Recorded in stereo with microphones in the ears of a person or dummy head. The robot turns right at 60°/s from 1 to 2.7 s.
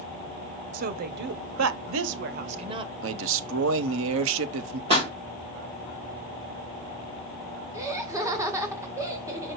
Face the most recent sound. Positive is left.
turn(degrees=-20)  # may be behind; listen again after turning